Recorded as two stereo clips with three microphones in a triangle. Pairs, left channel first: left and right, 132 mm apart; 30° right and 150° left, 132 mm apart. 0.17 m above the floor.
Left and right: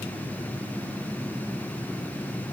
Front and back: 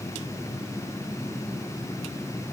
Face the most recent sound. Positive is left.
No sound to turn to.